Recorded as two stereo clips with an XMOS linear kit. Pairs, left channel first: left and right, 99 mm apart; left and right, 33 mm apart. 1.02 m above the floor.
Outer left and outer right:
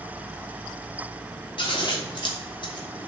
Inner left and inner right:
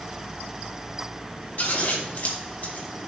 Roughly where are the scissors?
Left.